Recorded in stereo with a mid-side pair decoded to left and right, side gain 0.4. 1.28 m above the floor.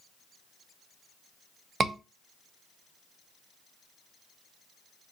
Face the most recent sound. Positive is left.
turn(degrees=-45)